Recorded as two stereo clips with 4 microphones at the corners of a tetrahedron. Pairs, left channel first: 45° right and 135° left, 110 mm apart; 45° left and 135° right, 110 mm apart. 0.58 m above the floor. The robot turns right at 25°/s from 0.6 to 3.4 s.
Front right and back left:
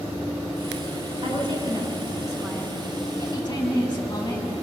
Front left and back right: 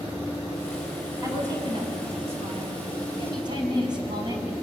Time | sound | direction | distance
1.2 | a woman speaking | 170° left | 6 m
3.2 | a woman speaking | 95° right | 5 m